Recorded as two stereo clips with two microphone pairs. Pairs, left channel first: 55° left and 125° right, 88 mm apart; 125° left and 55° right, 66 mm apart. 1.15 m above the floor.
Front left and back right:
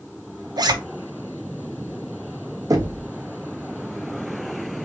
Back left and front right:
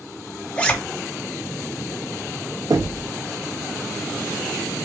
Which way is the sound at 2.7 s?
80° right.